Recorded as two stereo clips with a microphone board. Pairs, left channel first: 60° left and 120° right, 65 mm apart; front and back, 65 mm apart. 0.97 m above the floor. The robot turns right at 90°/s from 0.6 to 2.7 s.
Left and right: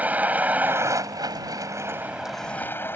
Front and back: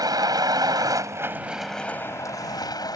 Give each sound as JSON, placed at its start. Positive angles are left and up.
{"t": 0.0, "sound": "a vehicle", "azimuth_deg": 175}